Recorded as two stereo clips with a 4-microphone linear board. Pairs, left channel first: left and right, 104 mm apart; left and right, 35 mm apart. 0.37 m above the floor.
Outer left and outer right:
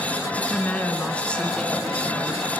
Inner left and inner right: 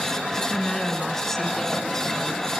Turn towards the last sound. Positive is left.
turn(degrees=0)  # may be behind; listen again after turning